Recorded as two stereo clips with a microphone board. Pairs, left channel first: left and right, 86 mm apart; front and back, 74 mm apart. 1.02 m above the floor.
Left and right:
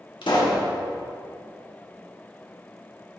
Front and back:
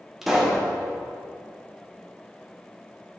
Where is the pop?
95° left, 1.5 m.